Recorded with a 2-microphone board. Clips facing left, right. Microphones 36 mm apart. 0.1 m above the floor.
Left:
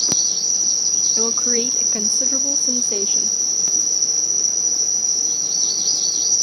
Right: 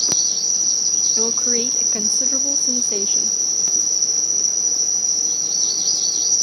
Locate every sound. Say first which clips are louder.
0.0 s an insect: even; 10° right (ahead or behind)
1.2 s a woman speaking: left 2 dB; 20° left (ahead or behind)